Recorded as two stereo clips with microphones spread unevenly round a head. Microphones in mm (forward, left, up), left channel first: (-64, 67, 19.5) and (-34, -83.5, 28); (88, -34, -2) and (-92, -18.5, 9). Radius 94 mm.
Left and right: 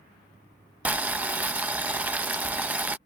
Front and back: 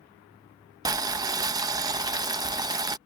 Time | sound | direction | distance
0.8 | boiling | 145° right | ?